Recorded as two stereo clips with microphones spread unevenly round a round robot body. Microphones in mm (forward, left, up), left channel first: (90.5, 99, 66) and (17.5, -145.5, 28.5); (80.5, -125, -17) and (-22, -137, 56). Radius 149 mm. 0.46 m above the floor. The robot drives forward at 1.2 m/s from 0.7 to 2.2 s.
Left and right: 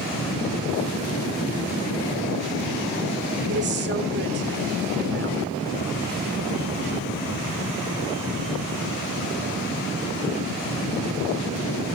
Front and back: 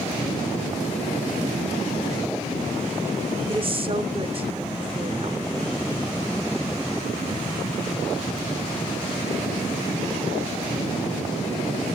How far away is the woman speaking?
About 1.4 m.